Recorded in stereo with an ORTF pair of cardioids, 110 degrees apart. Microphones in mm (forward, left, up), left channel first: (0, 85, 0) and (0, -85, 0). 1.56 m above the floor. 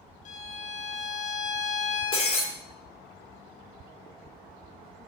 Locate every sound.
0.2 s a violin: 45° left, 0.7 m
2.1 s breaking glass: 30° left, 2.5 m